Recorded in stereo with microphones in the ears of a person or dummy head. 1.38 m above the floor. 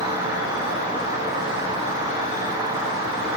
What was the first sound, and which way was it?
An insect, 25° right (ahead or behind).